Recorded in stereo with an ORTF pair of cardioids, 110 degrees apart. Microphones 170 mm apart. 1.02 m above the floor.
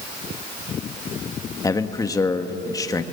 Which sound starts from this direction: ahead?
A man speaking, at 1.6 s.